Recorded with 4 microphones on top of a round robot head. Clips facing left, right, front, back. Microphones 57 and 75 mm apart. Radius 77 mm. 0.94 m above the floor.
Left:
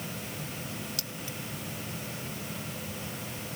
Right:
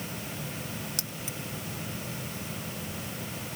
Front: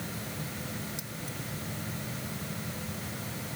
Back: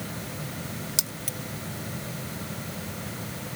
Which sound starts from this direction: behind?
Keys jangling, at 1.0 s.